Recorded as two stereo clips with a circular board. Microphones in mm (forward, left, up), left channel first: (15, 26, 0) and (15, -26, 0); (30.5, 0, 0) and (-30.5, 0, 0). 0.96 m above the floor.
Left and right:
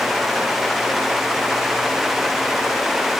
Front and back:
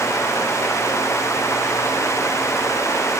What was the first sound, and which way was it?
Only background noise.